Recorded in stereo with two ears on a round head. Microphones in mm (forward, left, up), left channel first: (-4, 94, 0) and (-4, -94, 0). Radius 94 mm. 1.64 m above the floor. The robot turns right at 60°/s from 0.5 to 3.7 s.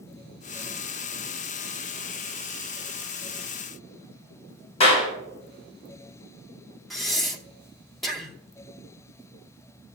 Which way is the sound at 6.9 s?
Centre (ahead or behind).